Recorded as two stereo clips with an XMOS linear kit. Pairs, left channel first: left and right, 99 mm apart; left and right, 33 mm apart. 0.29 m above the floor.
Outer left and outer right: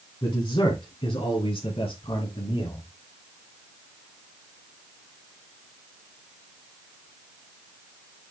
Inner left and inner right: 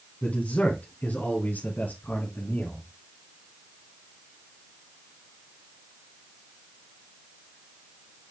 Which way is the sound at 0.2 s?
55° left (ahead or behind).